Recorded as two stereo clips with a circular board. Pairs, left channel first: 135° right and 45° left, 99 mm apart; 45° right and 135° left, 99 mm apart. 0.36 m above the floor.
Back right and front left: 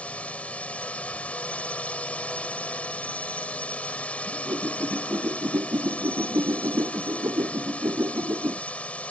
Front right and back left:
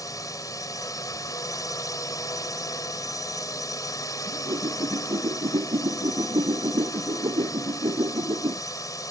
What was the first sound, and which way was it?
A drone, 65° right.